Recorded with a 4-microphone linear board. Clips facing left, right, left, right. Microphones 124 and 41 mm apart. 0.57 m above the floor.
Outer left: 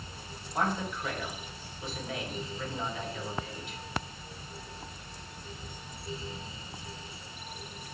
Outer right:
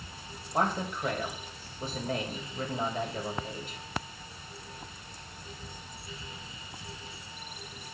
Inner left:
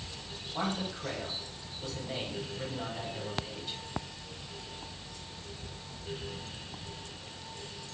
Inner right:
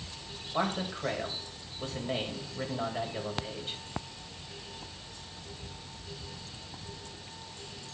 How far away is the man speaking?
About 3.5 m.